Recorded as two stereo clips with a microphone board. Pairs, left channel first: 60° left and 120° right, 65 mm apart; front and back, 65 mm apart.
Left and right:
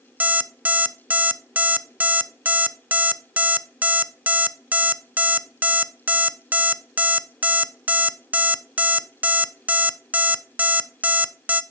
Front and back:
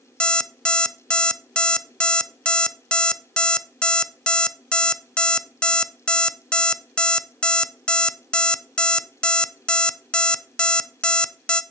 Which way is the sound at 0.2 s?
70° right.